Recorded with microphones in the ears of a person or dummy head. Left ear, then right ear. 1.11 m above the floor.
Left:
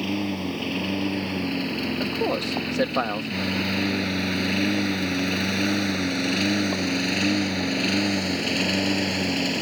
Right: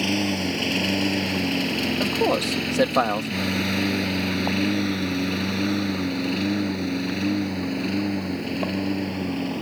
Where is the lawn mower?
25° right (ahead or behind); by 9.6 s 50° left (ahead or behind).